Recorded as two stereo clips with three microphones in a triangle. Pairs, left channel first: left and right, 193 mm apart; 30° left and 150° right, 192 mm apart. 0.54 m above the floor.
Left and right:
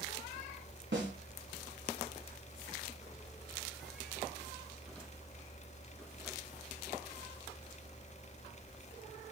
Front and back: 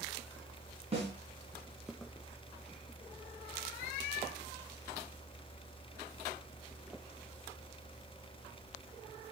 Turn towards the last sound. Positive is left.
turn(degrees=-90)